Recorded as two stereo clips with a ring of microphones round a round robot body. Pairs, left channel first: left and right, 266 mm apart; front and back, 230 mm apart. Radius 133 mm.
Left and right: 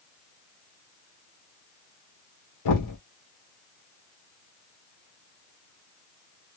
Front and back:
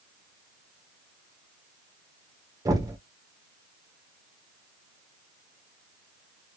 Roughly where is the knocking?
Left.